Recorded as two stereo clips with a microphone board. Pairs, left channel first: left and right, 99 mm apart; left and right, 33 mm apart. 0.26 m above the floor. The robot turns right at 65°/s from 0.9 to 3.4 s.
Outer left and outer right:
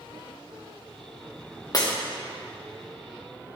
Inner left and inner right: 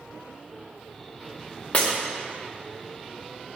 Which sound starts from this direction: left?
Breaking glass, at 1.7 s.